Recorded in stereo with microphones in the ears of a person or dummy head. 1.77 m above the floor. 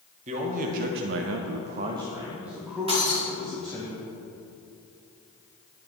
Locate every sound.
0.3 s a man speaking: 45° right (ahead or behind), 1.5 m; by 3.9 s 10° left (ahead or behind), 3 m
2.9 s breaking glass: 20° right (ahead or behind), 2 m